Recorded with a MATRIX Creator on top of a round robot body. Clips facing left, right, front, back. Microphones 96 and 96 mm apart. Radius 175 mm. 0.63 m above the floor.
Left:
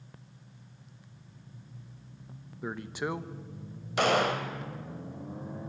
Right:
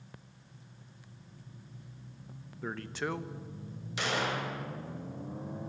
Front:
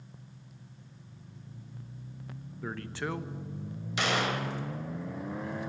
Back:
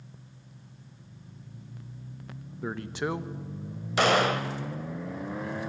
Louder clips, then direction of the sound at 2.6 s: Left 2 dB, back 4 dB; 145° left.